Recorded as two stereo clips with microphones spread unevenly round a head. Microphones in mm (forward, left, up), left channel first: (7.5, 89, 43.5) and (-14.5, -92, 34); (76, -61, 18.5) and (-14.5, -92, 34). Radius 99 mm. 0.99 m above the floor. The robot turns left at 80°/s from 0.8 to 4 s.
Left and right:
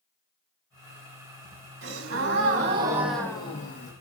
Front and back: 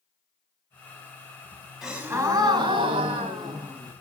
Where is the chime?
I don't hear a chime.